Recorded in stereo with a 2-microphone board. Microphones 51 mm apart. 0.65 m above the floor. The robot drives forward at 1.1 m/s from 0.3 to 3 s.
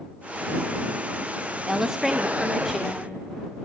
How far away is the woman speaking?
About 0.5 m.